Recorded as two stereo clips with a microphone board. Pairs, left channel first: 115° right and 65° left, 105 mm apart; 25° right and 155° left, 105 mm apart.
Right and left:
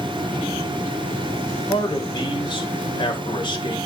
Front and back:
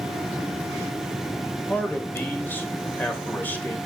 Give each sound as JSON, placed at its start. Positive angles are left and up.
{"t": 1.7, "sound": "a man speaking", "azimuth_deg": -90, "distance_m": 1.9}